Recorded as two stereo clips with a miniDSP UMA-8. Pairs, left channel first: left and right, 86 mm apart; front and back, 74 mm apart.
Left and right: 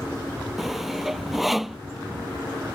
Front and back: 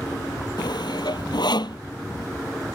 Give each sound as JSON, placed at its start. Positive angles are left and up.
{"t": 0.6, "sound": "sawing", "azimuth_deg": -5}